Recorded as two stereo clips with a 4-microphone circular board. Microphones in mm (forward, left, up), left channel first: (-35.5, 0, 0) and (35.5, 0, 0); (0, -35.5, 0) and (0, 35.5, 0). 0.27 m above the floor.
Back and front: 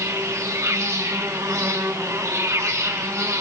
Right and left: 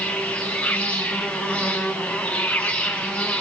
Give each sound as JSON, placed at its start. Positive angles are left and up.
{"t": 0.0, "sound": "an insect", "azimuth_deg": -20, "distance_m": 1.8}